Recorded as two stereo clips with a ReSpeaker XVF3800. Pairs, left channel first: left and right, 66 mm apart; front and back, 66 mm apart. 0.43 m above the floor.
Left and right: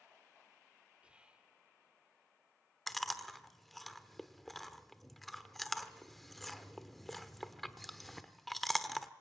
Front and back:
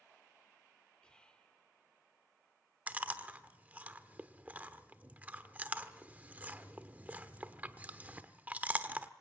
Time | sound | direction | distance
1.0 | whispering | 50° right | 0.9 m
2.9 | chewing | 175° left | 1.0 m